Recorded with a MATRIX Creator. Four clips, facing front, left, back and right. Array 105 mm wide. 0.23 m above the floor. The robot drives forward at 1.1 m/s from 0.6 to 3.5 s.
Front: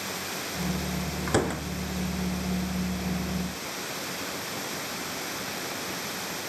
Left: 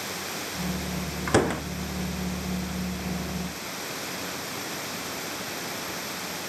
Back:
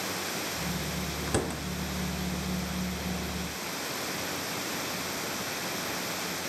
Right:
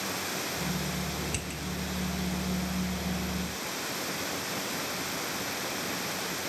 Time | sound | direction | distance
1.3 | a door slam | 70° left | ?